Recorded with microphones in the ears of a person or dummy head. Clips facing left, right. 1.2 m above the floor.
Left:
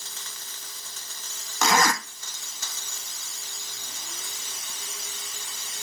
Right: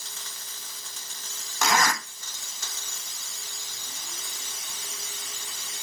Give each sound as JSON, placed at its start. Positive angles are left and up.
{"t": 1.6, "sound": "a zipper", "side_deg": 75, "distance_m": 1.0}